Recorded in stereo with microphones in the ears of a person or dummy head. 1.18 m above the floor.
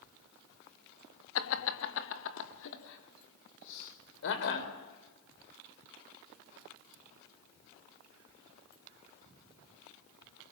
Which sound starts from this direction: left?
Laughter, at 1.4 s.